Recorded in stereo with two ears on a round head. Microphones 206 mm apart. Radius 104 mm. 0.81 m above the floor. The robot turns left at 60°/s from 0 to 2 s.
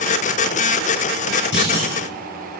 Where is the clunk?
55° left (ahead or behind), 5 m; by 1.9 s 80° left, 5 m.